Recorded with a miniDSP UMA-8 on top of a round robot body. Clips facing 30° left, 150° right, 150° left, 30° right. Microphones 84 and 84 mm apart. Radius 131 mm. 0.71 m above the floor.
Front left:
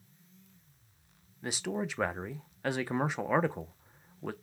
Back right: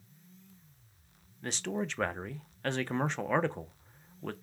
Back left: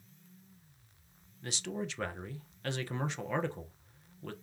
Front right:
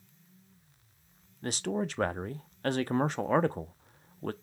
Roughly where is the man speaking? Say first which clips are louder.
Even, front right 6 dB; ahead right.